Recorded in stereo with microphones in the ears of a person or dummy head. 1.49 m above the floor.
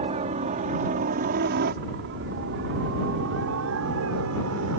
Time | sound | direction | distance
0.0 | a helicopter | 30° right (ahead or behind) | ?